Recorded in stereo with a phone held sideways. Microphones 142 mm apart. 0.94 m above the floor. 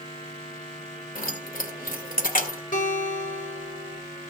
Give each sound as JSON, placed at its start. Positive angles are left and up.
{"t": 1.1, "sound": "keys jangling", "side_deg": 75, "distance_m": 2.0}
{"t": 2.7, "sound": "a guitar", "side_deg": 75, "distance_m": 3.5}